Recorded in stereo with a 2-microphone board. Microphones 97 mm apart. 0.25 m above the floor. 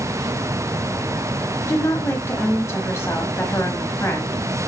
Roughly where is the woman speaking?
Left.